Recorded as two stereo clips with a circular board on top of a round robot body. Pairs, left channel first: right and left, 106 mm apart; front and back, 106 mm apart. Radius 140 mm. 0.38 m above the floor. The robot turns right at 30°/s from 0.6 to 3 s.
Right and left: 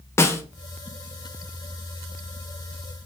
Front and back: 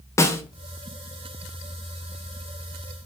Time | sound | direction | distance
0.2 | a snare drum | 45° right | 0.6 m